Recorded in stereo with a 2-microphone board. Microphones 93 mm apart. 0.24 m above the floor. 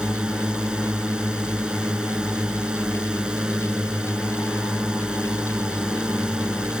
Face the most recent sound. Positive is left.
turn(degrees=-10)  # may be behind; listen again after turning